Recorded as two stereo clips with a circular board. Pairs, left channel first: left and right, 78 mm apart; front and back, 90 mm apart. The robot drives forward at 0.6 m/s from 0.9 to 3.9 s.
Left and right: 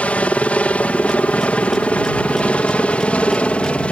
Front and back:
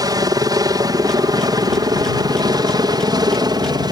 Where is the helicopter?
160° left.